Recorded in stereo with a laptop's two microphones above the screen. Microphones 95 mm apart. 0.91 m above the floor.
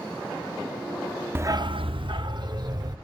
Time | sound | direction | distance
1.4 | a dog barking | 25° right (ahead or behind) | 0.6 m